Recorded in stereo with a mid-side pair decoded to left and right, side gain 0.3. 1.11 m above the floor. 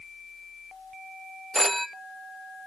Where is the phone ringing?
Straight ahead, 0.8 m.